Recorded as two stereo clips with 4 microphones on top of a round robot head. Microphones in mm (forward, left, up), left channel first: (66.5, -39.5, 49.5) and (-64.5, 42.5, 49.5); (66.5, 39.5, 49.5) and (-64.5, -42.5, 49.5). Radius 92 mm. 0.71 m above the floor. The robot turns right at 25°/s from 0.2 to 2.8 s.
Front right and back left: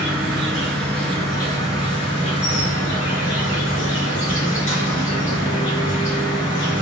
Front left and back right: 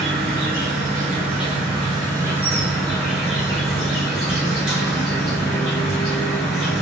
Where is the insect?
130° right, 1.1 m; by 6.8 s 65° right, 1.1 m.